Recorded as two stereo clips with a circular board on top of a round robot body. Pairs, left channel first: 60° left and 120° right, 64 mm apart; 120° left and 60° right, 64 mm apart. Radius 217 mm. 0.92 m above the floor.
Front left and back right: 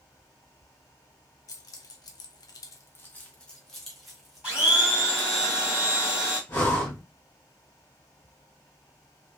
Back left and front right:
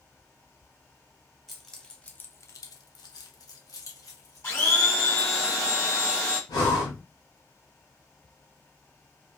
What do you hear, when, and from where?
1.5 s keys jangling: 30° left, 0.8 m; by 5.4 s 160° left, 1.9 m
4.4 s a blender: 170° left, 2 m
6.5 s breathing: 120° left, 1.0 m